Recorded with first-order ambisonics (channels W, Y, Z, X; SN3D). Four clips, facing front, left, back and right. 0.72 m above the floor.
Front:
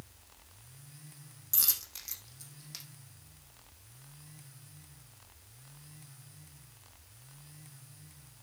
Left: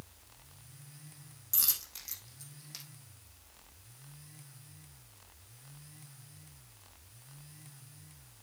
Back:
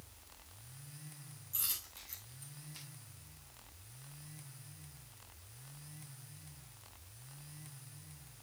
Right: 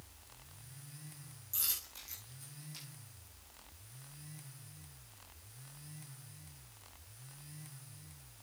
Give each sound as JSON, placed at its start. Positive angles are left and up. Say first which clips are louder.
{"t": 1.5, "sound": "a dropped coin", "louder": "left 5 dB, front 8 dB", "azimuth_deg": 30, "distance_m": 3.5}